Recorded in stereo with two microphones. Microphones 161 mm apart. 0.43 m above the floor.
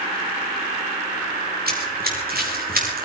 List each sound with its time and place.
1.7 s running footsteps: 70° right (ahead or behind), 10 m; by 3.1 s 65° right (ahead or behind), 10.5 m